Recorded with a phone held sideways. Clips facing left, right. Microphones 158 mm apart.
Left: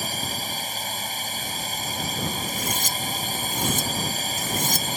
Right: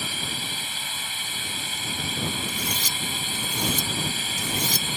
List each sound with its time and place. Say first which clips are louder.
0.0 s a drone: left 3 dB; 40° left (ahead or behind)
2.5 s cutlery clinking: left 3 dB; 45° left (ahead or behind)